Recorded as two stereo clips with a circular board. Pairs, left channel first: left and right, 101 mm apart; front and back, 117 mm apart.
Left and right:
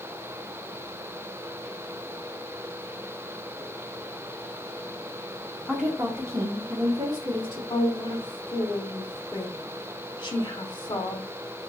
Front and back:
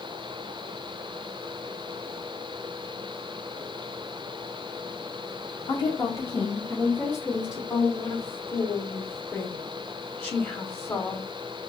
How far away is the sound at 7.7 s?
About 1.2 m.